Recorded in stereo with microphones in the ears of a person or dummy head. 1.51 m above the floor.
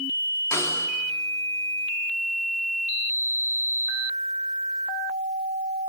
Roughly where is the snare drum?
Centre.